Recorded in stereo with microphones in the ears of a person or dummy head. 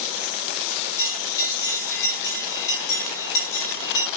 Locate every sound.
1.0 s a bell: 20° left (ahead or behind), 2.5 m